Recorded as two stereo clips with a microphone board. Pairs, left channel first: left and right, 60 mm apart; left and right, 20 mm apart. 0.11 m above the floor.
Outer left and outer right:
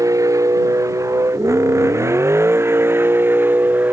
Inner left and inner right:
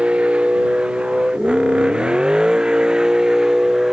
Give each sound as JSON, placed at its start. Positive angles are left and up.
{"t": 0.0, "sound": "a vehicle", "side_deg": -70}